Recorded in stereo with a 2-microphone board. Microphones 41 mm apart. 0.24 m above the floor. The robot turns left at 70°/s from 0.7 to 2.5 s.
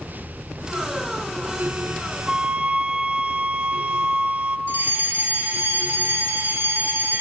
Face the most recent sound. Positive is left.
turn(degrees=-70)  # may be behind; listen again after turning